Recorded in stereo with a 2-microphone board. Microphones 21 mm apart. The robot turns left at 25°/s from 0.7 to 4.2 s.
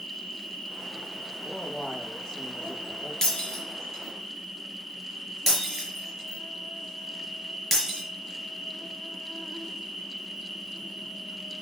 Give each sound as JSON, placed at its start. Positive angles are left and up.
{"t": 0.0, "sound": "an insect", "azimuth_deg": 115, "distance_m": 1.7}
{"t": 1.4, "sound": "a man speaking", "azimuth_deg": 155, "distance_m": 2.0}
{"t": 3.2, "sound": "breaking glass", "side_deg": 35, "distance_m": 4.5}